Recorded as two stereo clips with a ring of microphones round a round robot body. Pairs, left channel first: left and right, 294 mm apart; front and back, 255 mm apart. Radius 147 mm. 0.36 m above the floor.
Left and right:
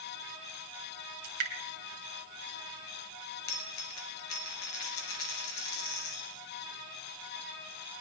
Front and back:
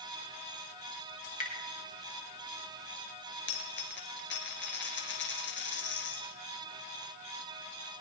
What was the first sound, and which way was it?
Dripping, 60° right.